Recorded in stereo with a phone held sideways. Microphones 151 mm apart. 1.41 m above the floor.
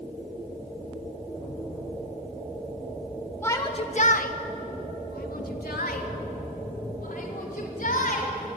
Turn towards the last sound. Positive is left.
turn(degrees=65)  # may be behind; listen again after turning